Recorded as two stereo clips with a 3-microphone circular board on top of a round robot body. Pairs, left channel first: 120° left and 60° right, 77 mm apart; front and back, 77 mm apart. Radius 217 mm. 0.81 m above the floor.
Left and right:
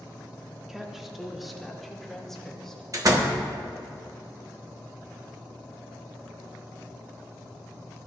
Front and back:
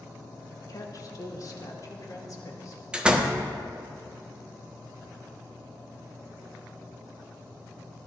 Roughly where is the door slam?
Right.